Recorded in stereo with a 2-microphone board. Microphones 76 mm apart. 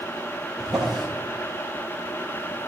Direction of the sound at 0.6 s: Centre (ahead or behind).